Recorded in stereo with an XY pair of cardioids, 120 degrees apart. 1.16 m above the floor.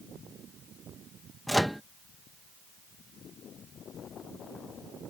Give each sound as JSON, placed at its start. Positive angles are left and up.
{"t": 1.5, "sound": "a microwave", "azimuth_deg": 0}